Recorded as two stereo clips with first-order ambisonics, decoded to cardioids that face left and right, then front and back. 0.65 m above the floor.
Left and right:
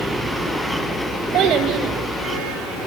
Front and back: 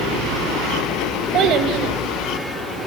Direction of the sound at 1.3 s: 135° right.